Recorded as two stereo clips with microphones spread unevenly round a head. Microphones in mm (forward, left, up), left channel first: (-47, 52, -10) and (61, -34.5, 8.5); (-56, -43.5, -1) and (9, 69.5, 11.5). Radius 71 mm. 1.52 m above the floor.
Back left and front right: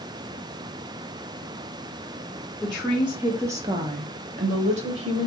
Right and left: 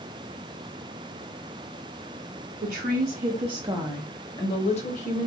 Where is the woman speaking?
50° left, 0.9 m; by 5.3 s 80° right, 1.0 m.